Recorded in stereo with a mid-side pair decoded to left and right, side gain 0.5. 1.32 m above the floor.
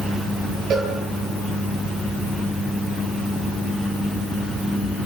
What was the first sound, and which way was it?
A cowbell, 55° right.